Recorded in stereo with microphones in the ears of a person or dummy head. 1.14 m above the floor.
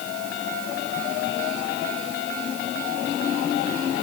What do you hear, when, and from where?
Only background noise.